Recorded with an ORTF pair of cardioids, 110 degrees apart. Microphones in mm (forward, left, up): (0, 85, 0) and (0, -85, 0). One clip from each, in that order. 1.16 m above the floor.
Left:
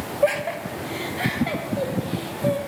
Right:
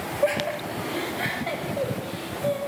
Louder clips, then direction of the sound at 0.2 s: Left 3 dB; 15° left.